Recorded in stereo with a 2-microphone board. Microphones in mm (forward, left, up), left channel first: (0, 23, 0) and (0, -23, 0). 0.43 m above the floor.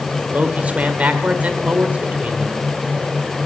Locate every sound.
0.3 s a man speaking: 35° right (ahead or behind), 1.7 m